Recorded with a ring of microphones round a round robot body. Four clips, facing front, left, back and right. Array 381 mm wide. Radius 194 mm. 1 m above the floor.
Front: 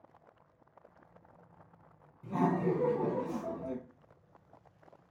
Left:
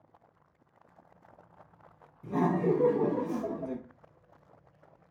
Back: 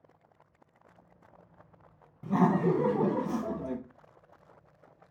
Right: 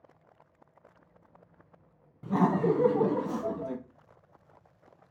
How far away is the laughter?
About 1.0 m.